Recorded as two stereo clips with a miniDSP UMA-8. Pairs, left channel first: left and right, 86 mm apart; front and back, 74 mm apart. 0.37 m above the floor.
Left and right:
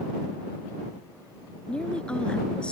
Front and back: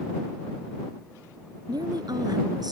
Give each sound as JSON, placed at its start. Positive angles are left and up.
{"t": 1.7, "sound": "a woman speaking", "azimuth_deg": 165}